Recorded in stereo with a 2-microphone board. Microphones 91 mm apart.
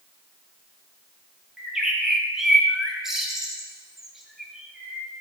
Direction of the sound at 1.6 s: 5° right (ahead or behind).